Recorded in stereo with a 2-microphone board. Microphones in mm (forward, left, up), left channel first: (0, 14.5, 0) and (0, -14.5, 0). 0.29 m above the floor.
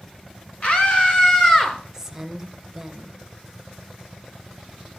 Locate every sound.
0.6 s a scream: 55° left (ahead or behind), 3 m; by 1.8 s 30° left (ahead or behind), 4 m
1.9 s a woman speaking: 15° right (ahead or behind), 1.2 m